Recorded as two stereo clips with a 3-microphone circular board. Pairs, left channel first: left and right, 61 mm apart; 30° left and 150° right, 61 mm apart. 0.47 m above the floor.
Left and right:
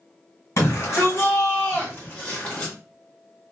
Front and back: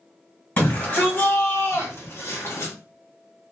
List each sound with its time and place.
0.6 s a shout: 85° left, 2.5 m; by 2.7 s 30° left, 2 m